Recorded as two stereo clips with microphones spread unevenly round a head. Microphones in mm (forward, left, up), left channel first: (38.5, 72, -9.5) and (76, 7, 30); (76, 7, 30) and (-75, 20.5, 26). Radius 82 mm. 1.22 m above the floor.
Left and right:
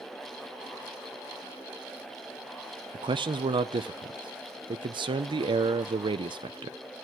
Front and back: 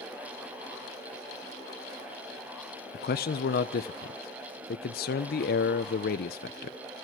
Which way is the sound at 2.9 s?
35° right.